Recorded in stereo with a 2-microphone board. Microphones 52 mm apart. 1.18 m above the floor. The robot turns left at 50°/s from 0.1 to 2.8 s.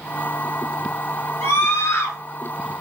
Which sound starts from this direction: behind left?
A scream, at 1.4 s.